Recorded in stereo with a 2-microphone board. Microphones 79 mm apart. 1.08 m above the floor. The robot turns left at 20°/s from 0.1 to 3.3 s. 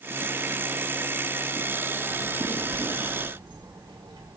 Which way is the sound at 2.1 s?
55° right (ahead or behind).